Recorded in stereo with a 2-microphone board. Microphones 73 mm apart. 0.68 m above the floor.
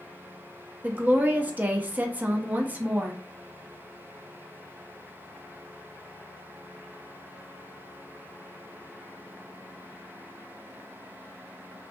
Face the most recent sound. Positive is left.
turn(degrees=-20)  # may be behind; listen again after turning